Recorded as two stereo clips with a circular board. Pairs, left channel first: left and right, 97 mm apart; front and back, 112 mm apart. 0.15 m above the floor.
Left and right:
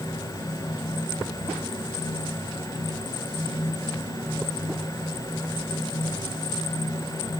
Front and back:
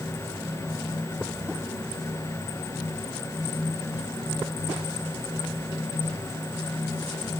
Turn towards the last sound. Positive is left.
No sound to turn to.